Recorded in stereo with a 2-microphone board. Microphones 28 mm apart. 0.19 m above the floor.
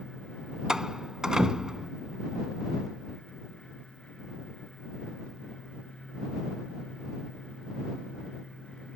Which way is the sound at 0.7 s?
25° right (ahead or behind).